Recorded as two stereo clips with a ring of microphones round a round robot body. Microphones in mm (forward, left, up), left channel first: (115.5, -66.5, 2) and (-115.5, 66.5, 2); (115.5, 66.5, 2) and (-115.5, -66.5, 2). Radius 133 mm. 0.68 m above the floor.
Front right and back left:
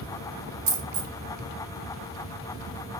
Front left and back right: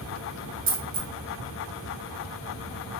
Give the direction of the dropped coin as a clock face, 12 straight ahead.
7 o'clock.